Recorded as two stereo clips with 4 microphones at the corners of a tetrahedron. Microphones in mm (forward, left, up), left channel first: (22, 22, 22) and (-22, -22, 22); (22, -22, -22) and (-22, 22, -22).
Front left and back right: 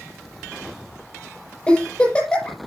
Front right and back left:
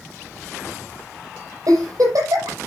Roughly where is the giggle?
Behind left.